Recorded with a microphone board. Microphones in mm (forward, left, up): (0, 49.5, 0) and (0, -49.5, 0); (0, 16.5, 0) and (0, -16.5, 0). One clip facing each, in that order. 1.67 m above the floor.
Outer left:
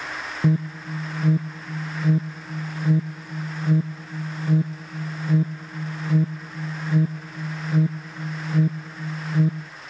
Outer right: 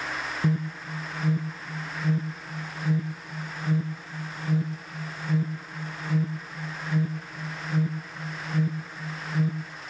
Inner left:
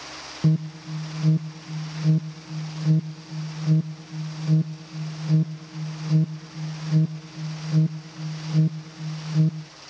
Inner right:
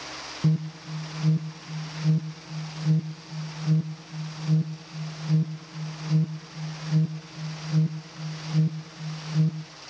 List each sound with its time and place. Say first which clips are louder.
0.4 s an alarm: outer left 6 dB, inner left 3 dB; 20° left (ahead or behind), 0.9 m